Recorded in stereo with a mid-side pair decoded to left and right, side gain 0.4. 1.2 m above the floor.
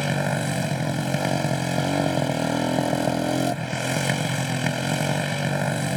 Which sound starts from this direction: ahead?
A motorcycle, at 0.0 s.